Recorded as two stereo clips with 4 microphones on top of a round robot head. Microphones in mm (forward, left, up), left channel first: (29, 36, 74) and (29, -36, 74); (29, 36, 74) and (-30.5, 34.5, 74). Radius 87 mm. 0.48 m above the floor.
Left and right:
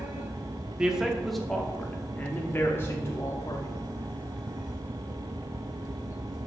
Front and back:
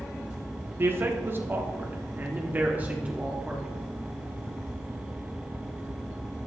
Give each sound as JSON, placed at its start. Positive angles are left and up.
{"t": 0.8, "sound": "a man speaking", "azimuth_deg": -165, "distance_m": 1.3}